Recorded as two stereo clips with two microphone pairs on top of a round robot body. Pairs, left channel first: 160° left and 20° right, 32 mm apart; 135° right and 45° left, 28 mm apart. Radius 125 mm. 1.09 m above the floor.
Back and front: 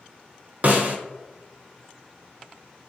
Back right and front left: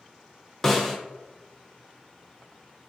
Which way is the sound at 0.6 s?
55° right.